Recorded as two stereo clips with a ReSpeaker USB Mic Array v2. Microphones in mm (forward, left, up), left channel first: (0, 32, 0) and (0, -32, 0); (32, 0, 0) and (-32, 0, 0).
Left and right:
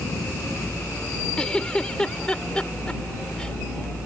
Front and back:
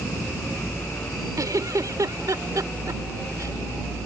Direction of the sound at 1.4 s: 165° left.